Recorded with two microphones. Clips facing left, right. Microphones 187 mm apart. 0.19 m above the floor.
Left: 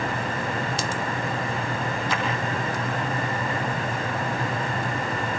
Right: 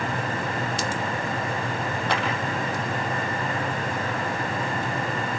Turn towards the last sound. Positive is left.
turn(degrees=-75)  # may be behind; listen again after turning